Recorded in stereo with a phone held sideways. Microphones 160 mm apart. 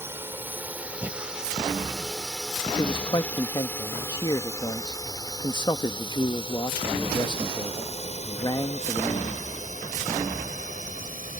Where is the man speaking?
25° left (ahead or behind).